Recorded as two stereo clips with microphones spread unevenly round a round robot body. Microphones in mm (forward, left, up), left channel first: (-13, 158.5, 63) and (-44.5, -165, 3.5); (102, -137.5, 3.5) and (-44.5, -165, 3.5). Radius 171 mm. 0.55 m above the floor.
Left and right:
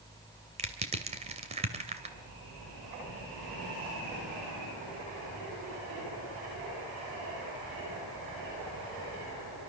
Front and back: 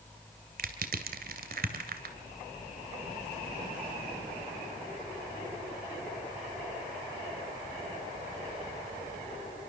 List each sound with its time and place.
0.6 s crushing: 165° right, 2 m